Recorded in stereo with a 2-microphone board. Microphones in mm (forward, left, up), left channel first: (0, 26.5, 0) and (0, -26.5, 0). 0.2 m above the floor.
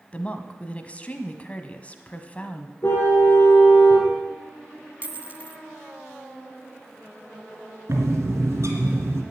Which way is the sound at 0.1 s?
25° left (ahead or behind).